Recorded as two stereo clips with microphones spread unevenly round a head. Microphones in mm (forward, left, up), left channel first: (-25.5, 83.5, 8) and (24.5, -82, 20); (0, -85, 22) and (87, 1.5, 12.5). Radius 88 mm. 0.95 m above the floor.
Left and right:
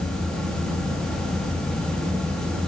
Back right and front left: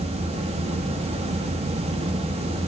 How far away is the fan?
About 2 m.